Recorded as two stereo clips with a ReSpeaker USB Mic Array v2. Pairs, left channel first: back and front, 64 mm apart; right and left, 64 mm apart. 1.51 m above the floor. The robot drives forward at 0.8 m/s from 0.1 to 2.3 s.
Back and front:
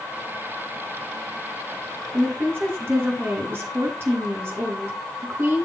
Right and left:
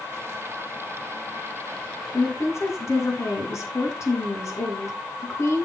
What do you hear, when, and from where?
2.1 s a woman speaking: 50° right, 2.5 m